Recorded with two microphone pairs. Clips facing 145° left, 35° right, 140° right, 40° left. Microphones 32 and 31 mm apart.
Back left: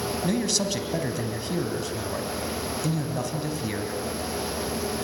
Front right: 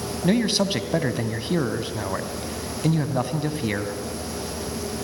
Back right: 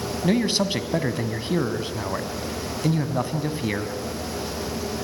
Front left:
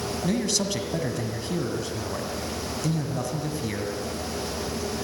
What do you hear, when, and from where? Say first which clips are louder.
0.2 s a man speaking: front right 6 dB, back right 5 dB; 90° right, 1.7 m